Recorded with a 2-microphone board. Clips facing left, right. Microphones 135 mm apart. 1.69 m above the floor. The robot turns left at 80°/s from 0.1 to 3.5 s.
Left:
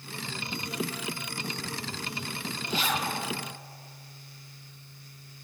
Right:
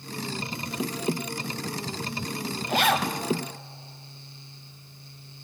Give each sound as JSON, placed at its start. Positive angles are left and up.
{"t": 2.7, "sound": "a zipper", "azimuth_deg": -55, "distance_m": 0.7}